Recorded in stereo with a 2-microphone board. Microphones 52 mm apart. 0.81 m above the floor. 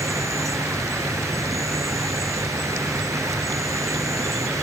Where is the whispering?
No whispering in this recording.